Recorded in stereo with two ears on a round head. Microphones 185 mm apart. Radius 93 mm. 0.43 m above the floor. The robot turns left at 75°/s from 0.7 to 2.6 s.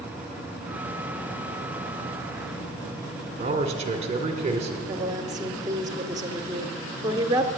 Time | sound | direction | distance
3.4 | a man speaking | 30° right (ahead or behind) | 1.4 m
4.9 | a woman speaking | 20° right (ahead or behind) | 0.9 m